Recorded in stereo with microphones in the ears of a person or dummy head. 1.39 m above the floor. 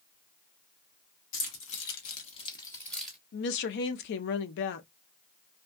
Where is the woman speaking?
70° left (ahead or behind), 0.6 m.